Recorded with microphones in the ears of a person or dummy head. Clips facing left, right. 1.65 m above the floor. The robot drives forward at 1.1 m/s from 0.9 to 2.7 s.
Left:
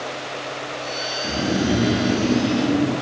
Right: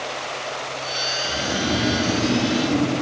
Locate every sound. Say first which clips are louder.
1.2 s snoring: left 5 dB; 45° left (ahead or behind), 1.2 m; by 3.0 s 20° left (ahead or behind), 2.5 m